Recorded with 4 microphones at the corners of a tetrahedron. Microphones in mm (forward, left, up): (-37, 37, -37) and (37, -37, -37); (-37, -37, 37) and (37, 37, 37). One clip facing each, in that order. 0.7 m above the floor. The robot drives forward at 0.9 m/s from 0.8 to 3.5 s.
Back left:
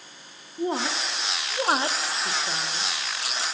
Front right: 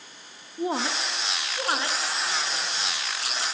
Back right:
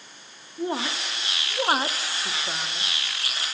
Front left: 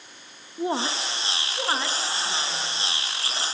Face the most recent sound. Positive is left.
turn(degrees=180)